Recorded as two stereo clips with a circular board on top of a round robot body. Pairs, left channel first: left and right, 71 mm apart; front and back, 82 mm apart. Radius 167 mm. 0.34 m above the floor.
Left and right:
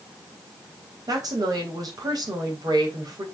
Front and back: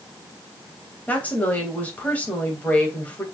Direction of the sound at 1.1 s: 70° right.